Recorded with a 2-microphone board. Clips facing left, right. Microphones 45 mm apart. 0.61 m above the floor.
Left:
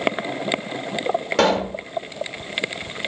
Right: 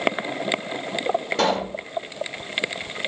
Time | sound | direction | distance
1.4 | a pop | 75° left (ahead or behind) | 1.1 m